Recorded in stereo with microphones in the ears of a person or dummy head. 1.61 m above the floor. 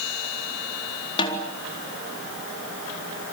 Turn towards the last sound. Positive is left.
turn(degrees=25)  # may be behind; listen again after turning